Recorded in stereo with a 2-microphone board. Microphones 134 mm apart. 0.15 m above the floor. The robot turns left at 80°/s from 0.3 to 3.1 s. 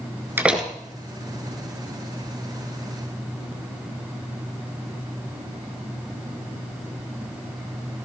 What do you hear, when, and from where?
0.4 s a door slam: 15° right (ahead or behind), 1.5 m; by 0.7 s 5° left (ahead or behind), 1.5 m